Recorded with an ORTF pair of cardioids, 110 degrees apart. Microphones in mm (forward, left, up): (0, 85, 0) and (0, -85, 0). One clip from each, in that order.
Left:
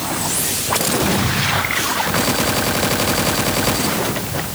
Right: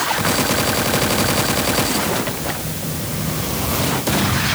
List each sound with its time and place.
Only background noise.